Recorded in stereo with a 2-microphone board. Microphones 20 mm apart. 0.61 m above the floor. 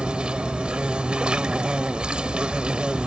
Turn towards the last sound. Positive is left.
turn(degrees=-65)  # may be behind; listen again after turning